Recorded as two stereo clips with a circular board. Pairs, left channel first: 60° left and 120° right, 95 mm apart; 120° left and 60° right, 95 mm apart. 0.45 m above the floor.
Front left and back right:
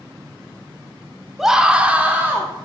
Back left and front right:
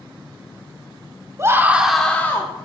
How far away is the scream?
About 0.8 m.